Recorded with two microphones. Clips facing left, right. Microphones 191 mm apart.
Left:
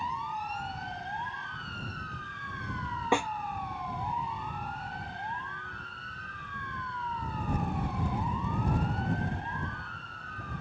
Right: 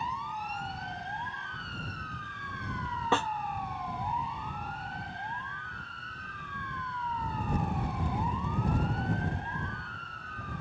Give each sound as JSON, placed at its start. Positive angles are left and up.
{"t": 3.1, "sound": "a snare drum", "side_deg": 10}